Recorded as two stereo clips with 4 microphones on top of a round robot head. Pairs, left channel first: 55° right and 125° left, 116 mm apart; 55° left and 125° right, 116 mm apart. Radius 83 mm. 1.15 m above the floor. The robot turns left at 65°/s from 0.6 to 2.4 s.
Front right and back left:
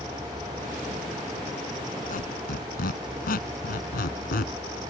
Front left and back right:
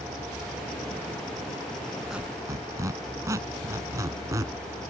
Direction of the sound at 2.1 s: 35° right.